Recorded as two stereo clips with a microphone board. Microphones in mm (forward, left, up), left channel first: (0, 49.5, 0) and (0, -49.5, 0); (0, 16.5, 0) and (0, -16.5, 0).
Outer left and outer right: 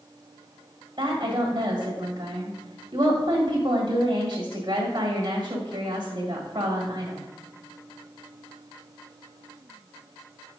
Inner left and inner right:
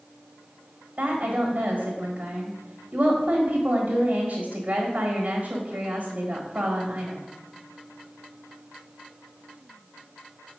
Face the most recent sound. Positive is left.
turn(degrees=-50)  # may be behind; listen again after turning